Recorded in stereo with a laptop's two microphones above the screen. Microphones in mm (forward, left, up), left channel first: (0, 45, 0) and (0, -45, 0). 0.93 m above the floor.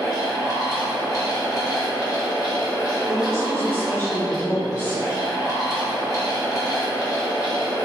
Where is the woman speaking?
25° left (ahead or behind), 1.0 m.